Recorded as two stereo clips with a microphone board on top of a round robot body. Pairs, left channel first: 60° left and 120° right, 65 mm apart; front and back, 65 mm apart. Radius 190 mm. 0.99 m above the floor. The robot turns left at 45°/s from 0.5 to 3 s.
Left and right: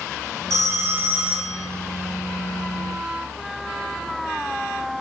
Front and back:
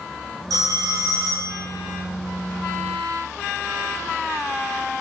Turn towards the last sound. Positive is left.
turn(degrees=90)